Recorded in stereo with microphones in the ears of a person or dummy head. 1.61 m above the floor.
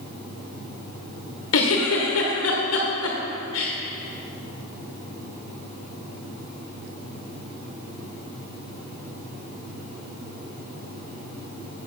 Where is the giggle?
75° left (ahead or behind), 1.7 m.